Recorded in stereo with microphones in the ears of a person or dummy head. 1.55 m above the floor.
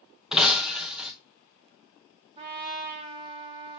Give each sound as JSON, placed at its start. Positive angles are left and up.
{"t": 0.3, "sound": "breaking glass", "side_deg": -5, "distance_m": 0.9}
{"t": 2.4, "sound": "a trumpet", "side_deg": -25, "distance_m": 1.9}